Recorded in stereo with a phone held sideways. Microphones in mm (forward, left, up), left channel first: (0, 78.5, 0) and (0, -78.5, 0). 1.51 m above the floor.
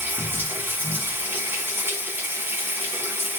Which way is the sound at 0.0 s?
15° right (ahead or behind).